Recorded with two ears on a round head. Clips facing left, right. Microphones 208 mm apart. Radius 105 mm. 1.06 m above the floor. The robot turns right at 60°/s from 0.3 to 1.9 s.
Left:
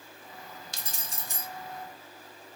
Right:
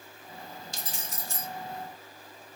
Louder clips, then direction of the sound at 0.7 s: Right 3 dB; 130° left.